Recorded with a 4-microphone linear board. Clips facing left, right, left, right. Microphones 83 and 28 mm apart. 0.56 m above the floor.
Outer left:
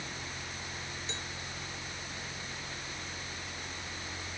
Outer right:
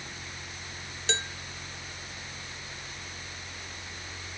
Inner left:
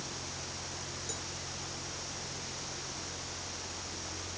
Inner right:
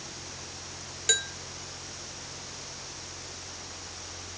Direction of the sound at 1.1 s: 80° right.